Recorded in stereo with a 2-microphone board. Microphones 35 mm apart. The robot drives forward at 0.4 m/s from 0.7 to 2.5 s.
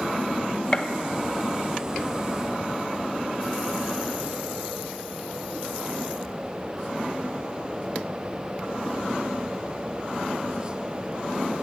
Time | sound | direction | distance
0.7 | a gunshot | 30° left (ahead or behind) | 0.5 m